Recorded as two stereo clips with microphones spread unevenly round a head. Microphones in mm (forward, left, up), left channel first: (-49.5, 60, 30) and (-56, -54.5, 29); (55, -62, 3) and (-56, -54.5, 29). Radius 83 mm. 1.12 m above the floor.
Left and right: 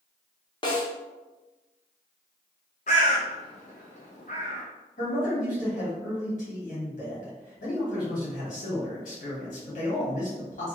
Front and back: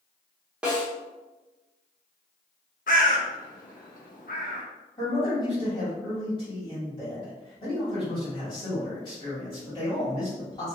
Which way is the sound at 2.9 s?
40° left.